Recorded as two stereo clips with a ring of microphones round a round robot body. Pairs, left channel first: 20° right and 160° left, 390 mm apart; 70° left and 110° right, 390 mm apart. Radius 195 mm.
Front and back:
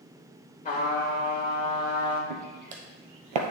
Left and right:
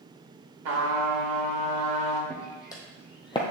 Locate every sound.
0.7 s a trumpet: 95° right, 2.5 m
2.3 s footsteps: 150° left, 1.8 m; by 3.5 s 145° left, 1.1 m